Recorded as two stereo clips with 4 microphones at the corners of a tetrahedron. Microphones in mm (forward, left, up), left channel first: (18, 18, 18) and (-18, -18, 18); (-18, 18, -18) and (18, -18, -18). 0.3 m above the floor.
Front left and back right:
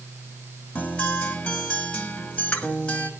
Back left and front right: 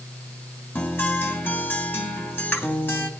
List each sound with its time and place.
0.8 s a guitar: 105° left, 2.5 m